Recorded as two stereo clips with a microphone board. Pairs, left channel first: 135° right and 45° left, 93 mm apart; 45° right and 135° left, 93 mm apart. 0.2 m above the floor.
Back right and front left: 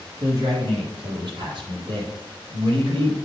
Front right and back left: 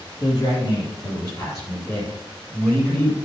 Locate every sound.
0.2 s a man speaking: 5° right, 4.5 m; by 3.1 s 20° left, 5 m